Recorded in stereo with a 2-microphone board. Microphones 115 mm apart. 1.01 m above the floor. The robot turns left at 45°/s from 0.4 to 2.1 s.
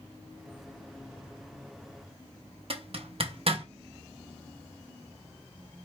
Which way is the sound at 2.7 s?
55° right (ahead or behind).